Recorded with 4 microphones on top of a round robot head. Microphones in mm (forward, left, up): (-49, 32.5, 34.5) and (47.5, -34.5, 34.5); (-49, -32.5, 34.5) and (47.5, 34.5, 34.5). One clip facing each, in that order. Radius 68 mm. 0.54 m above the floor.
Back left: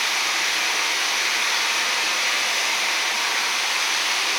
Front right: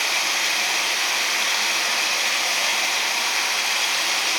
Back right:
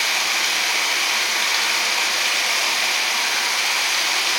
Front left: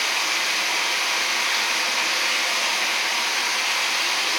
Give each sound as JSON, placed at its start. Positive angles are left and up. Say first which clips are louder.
{"t": 0.0, "sound": "running water", "louder": "even, back right 2 dB", "azimuth_deg": -100, "distance_m": 1.1}